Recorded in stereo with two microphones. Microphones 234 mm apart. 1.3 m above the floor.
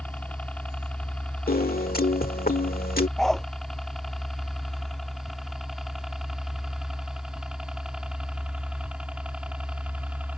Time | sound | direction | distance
0.0 | a helicopter | 5° left (ahead or behind) | ?
1.5 | a piano | 40° left (ahead or behind) | ?
3.2 | a dog barking | centre (ahead or behind) | ?